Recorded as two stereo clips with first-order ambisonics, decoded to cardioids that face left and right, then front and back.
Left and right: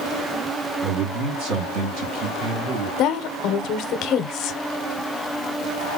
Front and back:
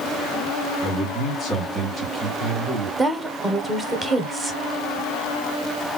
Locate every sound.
0.8 s a man speaking: 65° right, 1.4 m; by 2.9 s 140° right, 1.8 m
3.0 s a woman speaking: 105° left, 0.6 m